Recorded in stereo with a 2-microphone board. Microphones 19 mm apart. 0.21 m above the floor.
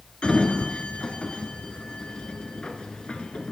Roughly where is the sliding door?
Left.